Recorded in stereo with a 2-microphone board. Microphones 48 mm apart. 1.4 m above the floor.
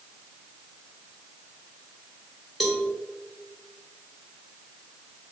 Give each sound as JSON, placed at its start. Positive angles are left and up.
{"t": 2.6, "sound": "a cowbell", "side_deg": 0, "distance_m": 1.2}